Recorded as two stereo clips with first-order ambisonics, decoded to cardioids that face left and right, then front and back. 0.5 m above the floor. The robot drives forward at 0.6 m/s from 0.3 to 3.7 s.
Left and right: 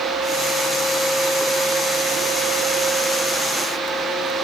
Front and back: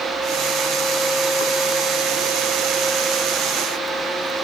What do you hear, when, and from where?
Only background noise.